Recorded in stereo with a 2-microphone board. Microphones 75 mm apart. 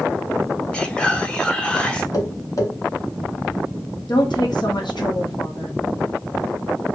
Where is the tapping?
55° left (ahead or behind), 1.0 m.